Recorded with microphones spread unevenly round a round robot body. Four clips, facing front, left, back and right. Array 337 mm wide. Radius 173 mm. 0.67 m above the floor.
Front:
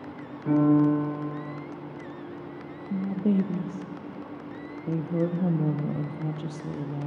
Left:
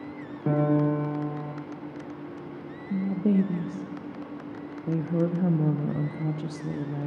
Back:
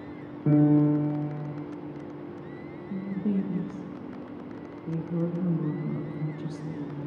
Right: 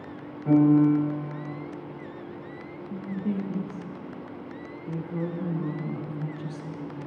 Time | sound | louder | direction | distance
0.5 | a piano | right 5 dB, even | 150° left | 1.4 m
2.9 | a woman speaking | left 6 dB, front 4 dB | 55° left | 0.5 m